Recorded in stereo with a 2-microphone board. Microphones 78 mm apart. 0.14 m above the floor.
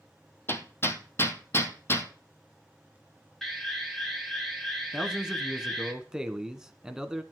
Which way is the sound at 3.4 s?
5° left (ahead or behind).